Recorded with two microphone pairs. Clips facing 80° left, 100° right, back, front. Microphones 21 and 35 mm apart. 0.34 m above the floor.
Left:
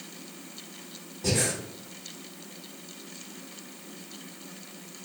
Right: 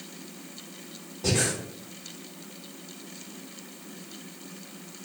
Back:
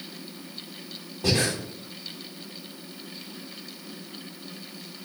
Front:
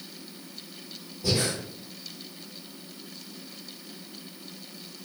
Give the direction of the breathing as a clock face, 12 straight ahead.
6 o'clock.